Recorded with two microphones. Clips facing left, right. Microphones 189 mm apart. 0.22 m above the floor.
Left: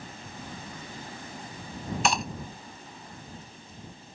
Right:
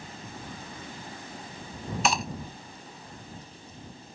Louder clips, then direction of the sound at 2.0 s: Even; centre (ahead or behind).